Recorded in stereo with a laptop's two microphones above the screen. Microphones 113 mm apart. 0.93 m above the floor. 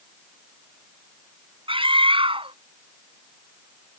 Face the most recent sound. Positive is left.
turn(degrees=-50)  # may be behind; listen again after turning